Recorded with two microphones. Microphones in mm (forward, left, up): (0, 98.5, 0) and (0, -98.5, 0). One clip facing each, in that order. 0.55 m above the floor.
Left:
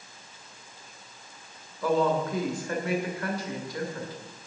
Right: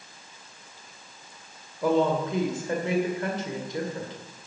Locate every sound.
1.8 s a woman speaking: 25° right (ahead or behind), 2 m